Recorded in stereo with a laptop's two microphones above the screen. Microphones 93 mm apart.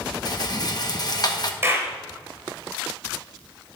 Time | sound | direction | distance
0.2 | a rattle | 45° left (ahead or behind) | 1.1 m
1.6 | a clap | 25° right (ahead or behind) | 3.5 m